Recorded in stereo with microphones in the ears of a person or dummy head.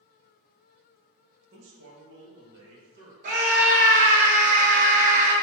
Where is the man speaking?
75° right (ahead or behind), 1.1 m; by 3.1 s 55° right (ahead or behind), 1.8 m.